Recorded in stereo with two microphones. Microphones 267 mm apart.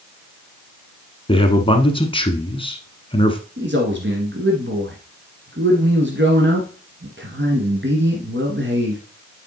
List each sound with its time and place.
1.3 s a man speaking: 20° left (ahead or behind), 1.1 m
3.6 s a man speaking: 45° right (ahead or behind), 1.5 m